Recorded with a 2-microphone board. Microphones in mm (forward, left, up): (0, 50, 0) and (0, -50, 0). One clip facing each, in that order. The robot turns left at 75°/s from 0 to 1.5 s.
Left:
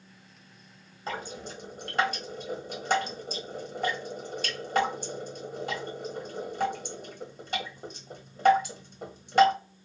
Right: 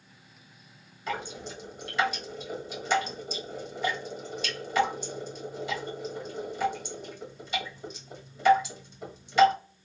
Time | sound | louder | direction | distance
1.1 | dripping | right 1 dB | 35° left (ahead or behind) | 1.2 m